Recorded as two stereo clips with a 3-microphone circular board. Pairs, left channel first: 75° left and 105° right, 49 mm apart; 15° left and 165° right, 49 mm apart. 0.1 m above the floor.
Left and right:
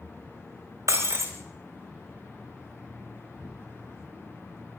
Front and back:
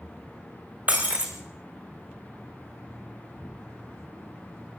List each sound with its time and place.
0.9 s breaking glass: 110° right, 4 m